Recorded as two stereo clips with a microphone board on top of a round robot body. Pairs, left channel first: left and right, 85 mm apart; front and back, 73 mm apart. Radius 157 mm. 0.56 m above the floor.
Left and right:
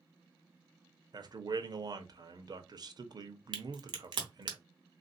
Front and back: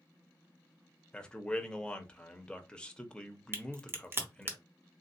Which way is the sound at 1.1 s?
75° right.